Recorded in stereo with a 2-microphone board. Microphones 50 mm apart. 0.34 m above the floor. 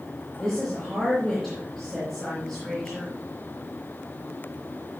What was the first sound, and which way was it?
A woman speaking, 5° right (ahead or behind).